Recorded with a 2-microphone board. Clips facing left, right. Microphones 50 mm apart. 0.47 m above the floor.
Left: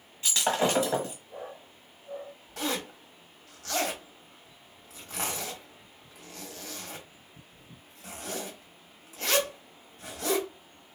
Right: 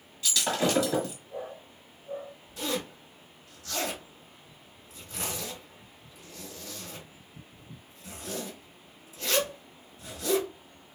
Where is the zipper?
75° left (ahead or behind), 1.2 m.